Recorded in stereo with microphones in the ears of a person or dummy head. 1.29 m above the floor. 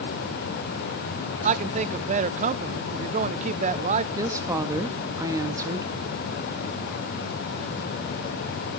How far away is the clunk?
I don't hear a clunk.